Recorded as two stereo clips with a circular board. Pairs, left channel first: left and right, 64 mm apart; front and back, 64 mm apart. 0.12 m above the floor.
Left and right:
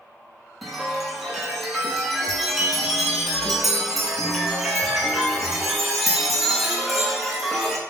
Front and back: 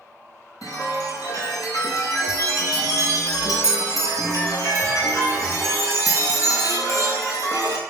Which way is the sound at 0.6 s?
Straight ahead.